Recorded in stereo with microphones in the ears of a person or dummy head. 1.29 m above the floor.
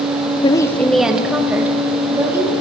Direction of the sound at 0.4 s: 30° left (ahead or behind).